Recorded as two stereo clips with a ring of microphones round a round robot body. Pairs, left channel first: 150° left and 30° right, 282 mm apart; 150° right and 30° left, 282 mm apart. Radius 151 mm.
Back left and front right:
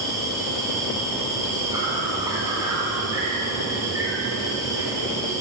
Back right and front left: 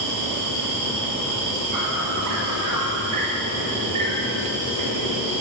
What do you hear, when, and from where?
0.0 s an insect: 50° left, 1.6 m